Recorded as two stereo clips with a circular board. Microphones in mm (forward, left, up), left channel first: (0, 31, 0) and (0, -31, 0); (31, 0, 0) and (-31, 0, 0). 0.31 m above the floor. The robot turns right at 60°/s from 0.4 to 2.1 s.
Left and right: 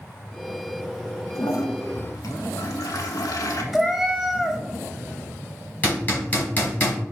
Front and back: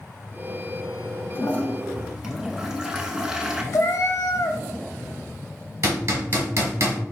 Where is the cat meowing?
5° right, 0.5 m.